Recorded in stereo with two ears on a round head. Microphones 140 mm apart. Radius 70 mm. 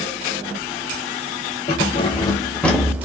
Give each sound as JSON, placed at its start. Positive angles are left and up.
{"t": 1.7, "sound": "keys jangling", "side_deg": 40, "distance_m": 1.0}